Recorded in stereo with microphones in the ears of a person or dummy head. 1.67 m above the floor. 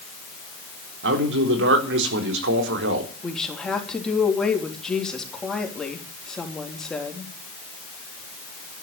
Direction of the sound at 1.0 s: 80° right.